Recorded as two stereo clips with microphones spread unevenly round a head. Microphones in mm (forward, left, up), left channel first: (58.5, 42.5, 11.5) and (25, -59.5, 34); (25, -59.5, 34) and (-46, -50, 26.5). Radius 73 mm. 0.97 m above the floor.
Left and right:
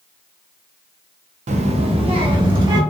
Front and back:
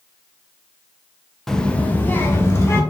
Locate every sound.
1.5 s a child speaking: 95° right, 0.5 m; by 2.8 s 60° right, 1.2 m